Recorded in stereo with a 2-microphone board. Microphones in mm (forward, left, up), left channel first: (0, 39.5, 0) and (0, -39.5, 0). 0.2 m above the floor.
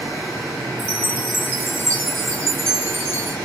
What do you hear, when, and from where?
0.8 s a chime: 30° right (ahead or behind), 2 m